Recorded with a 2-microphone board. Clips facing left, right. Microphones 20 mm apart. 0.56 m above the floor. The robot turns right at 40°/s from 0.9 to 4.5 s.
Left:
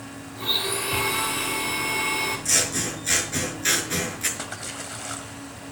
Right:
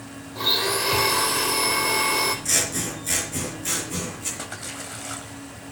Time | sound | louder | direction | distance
0.3 | a blender | right 3 dB | 115° right | 5 m
2.5 | scissors | left 1 dB | straight ahead | 5 m
4.4 | a splash | even | 5° left (ahead or behind) | 2.5 m